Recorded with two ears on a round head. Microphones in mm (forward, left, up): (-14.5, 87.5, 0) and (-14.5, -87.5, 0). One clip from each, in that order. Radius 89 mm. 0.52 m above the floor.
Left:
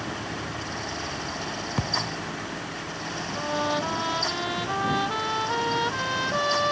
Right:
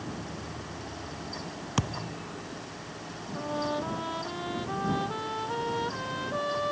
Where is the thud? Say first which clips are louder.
Left 6 dB; 65° right (ahead or behind).